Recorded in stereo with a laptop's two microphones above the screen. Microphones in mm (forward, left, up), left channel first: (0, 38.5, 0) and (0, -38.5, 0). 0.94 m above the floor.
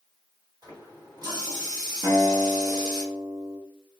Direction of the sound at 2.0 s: 50° right (ahead or behind).